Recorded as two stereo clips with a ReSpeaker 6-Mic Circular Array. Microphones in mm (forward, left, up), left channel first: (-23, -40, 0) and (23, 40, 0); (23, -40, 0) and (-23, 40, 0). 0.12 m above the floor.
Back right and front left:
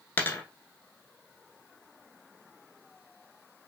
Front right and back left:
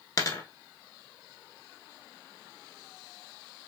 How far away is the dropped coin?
About 0.9 m.